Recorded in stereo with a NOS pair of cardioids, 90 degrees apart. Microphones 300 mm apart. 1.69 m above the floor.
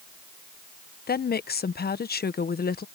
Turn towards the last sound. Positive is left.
turn(degrees=30)